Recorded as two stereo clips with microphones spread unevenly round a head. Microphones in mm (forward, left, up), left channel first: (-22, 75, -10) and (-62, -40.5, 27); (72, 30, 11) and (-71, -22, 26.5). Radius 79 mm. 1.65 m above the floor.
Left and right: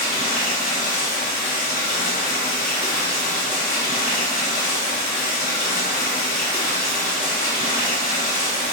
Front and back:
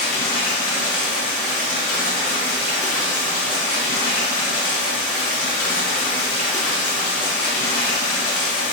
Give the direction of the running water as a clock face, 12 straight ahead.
11 o'clock.